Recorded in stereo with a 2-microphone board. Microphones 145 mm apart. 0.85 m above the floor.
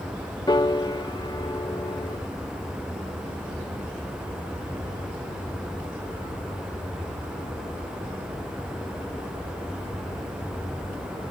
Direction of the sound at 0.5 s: 30° left (ahead or behind).